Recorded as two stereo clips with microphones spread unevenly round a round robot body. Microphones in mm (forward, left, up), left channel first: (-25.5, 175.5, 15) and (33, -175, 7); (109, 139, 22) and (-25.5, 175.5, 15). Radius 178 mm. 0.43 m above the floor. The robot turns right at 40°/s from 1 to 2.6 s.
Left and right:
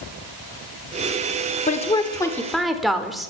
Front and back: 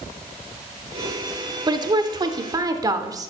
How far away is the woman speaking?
About 0.8 m.